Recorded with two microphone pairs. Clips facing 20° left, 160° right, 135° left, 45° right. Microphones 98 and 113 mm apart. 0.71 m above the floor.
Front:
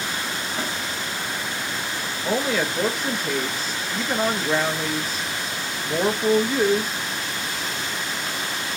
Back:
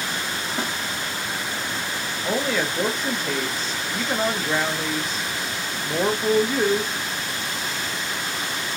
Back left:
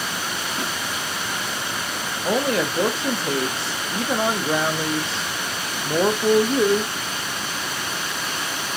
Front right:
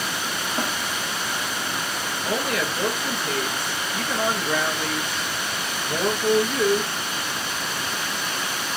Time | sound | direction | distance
0.6 | a snare drum | 85° right | 1.2 m
2.2 | a woman speaking | 105° left | 0.5 m